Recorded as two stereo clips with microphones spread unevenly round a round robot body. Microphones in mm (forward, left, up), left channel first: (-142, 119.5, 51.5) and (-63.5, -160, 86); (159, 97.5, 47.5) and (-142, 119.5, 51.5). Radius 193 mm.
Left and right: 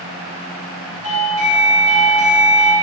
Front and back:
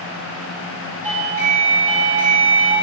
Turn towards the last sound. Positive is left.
turn(degrees=135)